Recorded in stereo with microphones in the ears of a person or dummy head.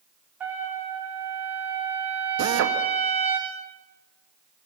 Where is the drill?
70° right (ahead or behind), 1.9 m.